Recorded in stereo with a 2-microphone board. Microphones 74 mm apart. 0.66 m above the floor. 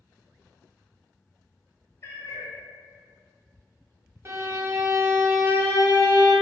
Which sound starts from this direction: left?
A cat meowing, at 2.0 s.